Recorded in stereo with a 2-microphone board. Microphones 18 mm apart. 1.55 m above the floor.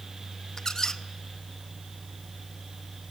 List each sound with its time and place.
0.6 s a squeak: 30° left (ahead or behind), 0.9 m